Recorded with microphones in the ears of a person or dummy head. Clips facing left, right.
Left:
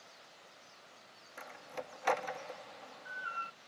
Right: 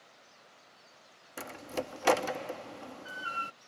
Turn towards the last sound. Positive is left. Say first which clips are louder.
# right 8 dB
turn(degrees=-50)  # may be behind; listen again after turning